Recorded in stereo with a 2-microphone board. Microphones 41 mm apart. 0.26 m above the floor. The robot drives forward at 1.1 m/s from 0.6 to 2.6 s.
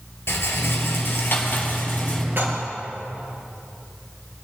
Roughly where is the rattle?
Left.